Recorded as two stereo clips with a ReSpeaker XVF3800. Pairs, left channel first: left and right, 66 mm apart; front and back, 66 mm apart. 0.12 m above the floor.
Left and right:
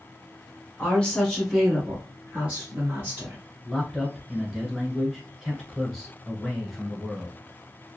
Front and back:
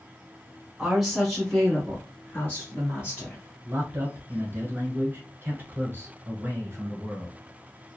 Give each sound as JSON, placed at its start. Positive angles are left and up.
{"t": 0.8, "sound": "a woman speaking", "azimuth_deg": 115, "distance_m": 1.2}
{"t": 3.6, "sound": "a man speaking", "azimuth_deg": -170, "distance_m": 1.3}